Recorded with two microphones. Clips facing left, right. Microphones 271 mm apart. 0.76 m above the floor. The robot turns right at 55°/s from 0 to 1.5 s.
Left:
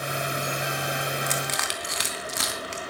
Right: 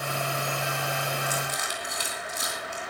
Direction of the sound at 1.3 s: 85° left.